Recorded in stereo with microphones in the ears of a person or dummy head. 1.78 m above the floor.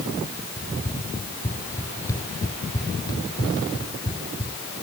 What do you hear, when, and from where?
0.6 s running footsteps: 15° left (ahead or behind); by 4.6 s 20° left (ahead or behind)